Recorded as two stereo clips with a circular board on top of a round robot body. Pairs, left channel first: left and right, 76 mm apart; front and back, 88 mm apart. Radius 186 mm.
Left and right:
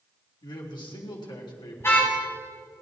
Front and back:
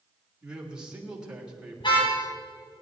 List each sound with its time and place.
0.4 s a man speaking: 100° left, 3.5 m
1.8 s a car horn: 30° left, 4 m